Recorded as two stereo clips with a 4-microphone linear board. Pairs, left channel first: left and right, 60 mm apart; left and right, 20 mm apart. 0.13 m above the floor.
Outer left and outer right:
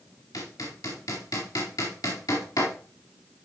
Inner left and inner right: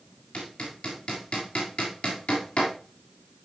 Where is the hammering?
85° left, 6.5 m.